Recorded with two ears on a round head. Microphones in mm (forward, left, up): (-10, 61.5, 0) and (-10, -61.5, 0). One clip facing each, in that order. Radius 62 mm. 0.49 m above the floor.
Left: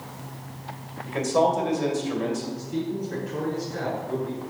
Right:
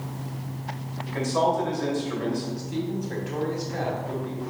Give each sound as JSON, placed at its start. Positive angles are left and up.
{"t": 1.1, "sound": "a man speaking", "side_deg": 25, "distance_m": 2.5}
{"t": 2.6, "sound": "a man speaking", "side_deg": -65, "distance_m": 3.0}